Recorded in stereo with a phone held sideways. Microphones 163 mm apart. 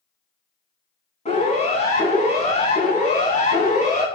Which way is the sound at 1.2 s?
40° left (ahead or behind).